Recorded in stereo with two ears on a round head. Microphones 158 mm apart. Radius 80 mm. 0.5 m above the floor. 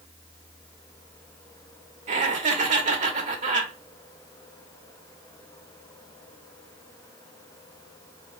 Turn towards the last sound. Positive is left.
turn(degrees=-45)  # may be behind; listen again after turning